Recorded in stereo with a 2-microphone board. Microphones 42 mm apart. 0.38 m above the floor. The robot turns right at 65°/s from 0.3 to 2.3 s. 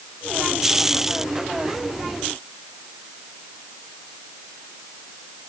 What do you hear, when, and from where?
Only background noise.